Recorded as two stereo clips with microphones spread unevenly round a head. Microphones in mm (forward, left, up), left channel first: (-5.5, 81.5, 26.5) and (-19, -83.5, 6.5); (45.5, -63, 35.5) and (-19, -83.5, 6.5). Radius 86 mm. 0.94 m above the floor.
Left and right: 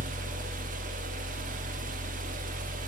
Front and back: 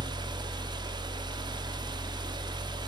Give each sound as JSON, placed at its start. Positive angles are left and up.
{"t": 0.0, "sound": "a fan", "azimuth_deg": -140, "distance_m": 0.9}